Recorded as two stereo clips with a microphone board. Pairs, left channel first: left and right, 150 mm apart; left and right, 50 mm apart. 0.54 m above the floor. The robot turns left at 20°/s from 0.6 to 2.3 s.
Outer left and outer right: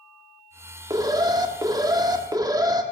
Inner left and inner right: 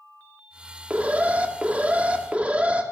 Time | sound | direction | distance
0.9 | an alarm | 25° right (ahead or behind) | 1.2 m